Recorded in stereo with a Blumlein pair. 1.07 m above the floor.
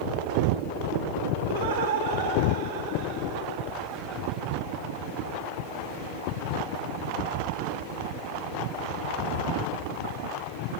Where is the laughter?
60° right, 3 m; by 4.4 s 25° right, 2.5 m.